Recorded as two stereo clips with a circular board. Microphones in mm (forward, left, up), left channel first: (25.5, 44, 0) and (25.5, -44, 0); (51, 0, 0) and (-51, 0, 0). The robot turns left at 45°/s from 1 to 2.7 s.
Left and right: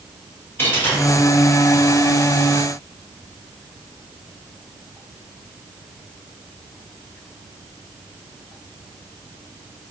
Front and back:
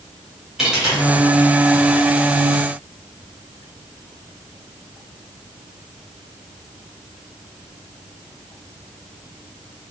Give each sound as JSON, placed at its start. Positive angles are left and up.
{"t": 0.6, "sound": "a dropped coin", "azimuth_deg": 105, "distance_m": 1.3}